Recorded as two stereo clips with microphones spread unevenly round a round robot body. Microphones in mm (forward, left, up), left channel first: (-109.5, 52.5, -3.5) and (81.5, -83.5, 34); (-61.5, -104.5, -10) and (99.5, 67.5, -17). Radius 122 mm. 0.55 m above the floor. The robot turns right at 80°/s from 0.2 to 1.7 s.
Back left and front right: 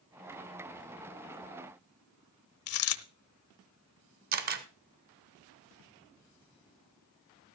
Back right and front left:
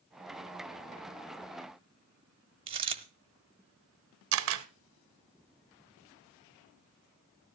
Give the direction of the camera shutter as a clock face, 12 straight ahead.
11 o'clock.